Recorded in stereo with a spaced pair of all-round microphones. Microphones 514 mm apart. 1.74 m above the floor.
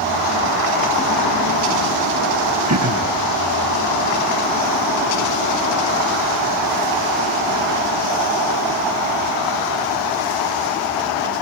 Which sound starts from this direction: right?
Throat clearing, at 2.7 s.